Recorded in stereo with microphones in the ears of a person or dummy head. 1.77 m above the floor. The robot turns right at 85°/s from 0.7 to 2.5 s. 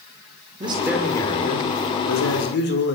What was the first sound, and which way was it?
A man speaking, 25° right.